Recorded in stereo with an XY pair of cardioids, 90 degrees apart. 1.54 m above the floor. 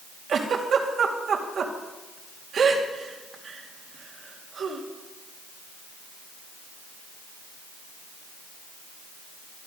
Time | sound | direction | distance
0.3 | a giggle | 60° right | 2.5 m